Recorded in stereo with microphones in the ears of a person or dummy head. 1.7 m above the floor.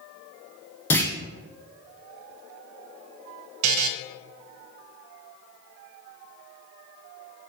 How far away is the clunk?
About 0.8 m.